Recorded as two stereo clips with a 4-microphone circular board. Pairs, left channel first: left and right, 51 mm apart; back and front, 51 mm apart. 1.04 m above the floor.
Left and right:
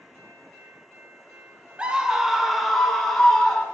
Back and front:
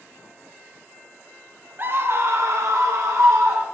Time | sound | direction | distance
1.8 | a scream | 30° right | 0.9 m